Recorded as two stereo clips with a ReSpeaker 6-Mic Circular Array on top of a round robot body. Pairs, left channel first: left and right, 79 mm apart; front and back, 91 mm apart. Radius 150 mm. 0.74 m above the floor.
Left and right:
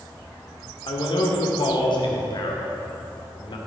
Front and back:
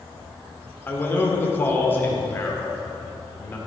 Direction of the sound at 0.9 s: 70° left.